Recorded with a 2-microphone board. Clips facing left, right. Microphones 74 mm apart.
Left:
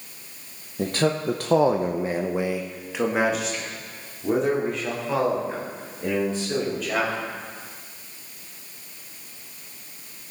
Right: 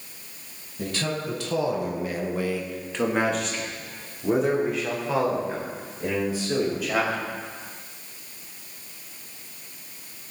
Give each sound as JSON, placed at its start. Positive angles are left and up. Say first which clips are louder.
{"t": 0.8, "sound": "a man speaking", "louder": "left 6 dB", "side_deg": 40, "distance_m": 1.4}